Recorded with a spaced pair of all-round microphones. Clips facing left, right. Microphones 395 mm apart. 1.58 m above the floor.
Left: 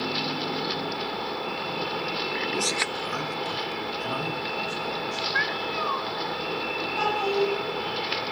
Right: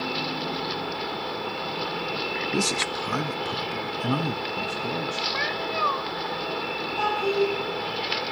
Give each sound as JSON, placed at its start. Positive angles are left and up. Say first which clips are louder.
{"t": 2.5, "sound": "a man speaking", "louder": "right 3 dB", "side_deg": -35, "distance_m": 0.6}
{"t": 5.3, "sound": "a cat meowing", "louder": "right 1 dB", "side_deg": 25, "distance_m": 0.9}
{"t": 7.0, "sound": "a child speaking", "louder": "right 1 dB", "side_deg": 80, "distance_m": 6.0}